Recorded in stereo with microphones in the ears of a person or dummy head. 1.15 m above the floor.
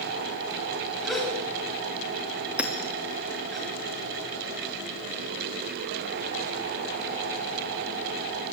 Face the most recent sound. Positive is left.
turn(degrees=-10)  # may be behind; listen again after turning